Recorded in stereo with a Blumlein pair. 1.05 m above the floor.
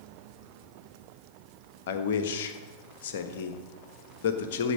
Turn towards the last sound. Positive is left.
turn(degrees=55)